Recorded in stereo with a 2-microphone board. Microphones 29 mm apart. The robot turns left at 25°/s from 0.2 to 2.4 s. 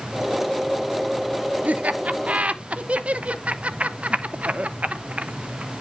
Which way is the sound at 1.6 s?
70° right (ahead or behind).